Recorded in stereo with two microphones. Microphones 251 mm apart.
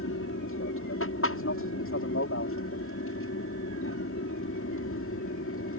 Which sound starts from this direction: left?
An aircraft, at 0.0 s.